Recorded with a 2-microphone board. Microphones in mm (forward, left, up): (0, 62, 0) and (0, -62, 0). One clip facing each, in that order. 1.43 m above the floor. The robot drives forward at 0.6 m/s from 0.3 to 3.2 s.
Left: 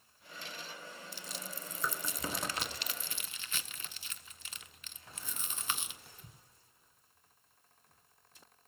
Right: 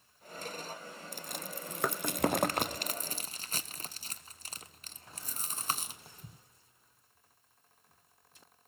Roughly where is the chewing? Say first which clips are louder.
Right 7 dB; right.